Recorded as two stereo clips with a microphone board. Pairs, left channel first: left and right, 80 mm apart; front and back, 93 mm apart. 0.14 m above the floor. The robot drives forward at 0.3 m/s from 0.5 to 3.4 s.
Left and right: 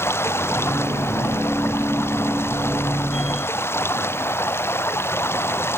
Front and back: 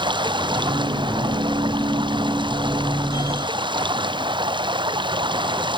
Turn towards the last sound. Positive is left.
turn(degrees=150)